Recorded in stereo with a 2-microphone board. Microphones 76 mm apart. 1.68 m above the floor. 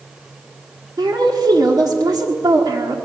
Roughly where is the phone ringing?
No phone ringing in this recording.